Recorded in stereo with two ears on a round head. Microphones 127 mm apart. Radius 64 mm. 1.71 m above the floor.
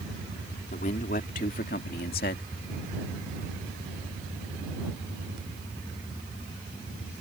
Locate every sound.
0.7 s a man speaking: 60° left (ahead or behind); by 2.4 s 75° left (ahead or behind)